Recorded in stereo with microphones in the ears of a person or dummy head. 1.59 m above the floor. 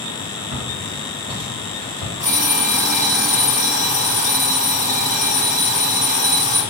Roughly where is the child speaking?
No child speaking in this recording.